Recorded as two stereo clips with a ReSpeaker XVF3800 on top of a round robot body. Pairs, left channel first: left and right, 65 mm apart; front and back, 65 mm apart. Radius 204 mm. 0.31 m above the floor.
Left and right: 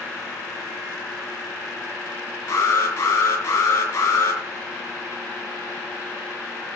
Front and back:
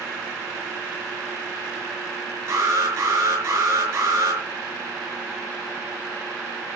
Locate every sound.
2.5 s an alarm: 140° left, 5.5 m